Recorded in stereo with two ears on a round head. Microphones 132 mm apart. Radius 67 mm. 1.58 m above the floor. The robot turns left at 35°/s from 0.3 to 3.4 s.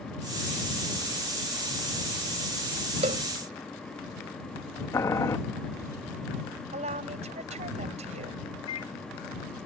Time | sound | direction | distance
3.0 | a cowbell | 50° right (ahead or behind) | ?
4.9 | boiling | 20° left (ahead or behind) | ?
6.7 | a woman speaking | 50° right (ahead or behind) | ?
8.7 | a microwave | 35° left (ahead or behind) | ?